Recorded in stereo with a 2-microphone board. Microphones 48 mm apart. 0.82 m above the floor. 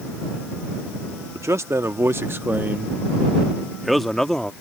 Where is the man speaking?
70° right (ahead or behind); by 4.5 s 10° left (ahead or behind).